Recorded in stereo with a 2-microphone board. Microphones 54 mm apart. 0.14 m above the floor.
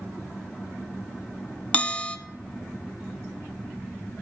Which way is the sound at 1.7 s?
25° left (ahead or behind).